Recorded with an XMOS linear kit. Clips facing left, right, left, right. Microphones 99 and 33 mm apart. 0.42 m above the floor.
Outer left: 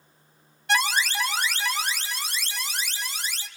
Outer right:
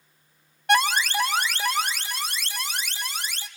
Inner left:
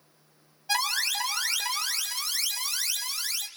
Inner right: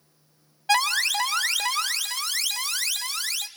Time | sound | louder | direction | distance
0.7 | an alarm | outer right 3 dB, inner right 6 dB | 55° right (ahead or behind) | 1.6 m